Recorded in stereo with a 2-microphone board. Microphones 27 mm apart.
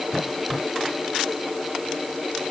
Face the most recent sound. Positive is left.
No sound to turn to.